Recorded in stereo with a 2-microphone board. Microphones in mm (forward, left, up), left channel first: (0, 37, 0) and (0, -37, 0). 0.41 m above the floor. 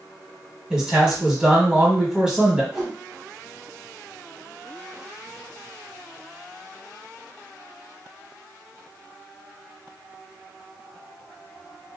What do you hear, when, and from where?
0.7 s a man speaking: 10° right (ahead or behind), 1.1 m
2.7 s a whoosh: 5° right (ahead or behind), 1.4 m